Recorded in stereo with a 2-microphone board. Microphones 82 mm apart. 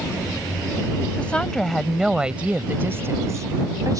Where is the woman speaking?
15° left (ahead or behind); by 4.0 s 50° right (ahead or behind).